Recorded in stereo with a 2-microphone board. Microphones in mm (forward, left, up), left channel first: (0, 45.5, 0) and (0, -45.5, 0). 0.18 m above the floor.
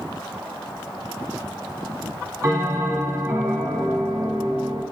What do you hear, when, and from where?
2.4 s a bell: 30° right (ahead or behind), 1.7 m